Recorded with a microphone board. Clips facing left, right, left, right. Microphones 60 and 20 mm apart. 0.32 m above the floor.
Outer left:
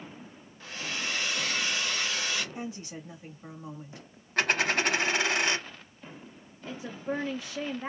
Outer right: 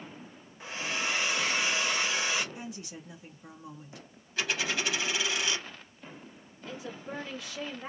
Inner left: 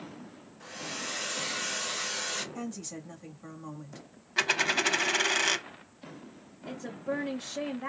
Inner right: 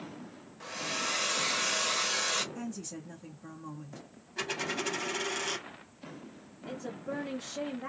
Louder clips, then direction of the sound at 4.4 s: Outer left 5 dB, inner left 8 dB; 55° left (ahead or behind).